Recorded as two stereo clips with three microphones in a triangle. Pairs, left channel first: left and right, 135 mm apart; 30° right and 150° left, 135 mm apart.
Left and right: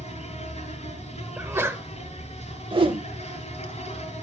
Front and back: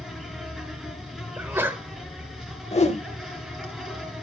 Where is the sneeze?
150° right, 1.0 m.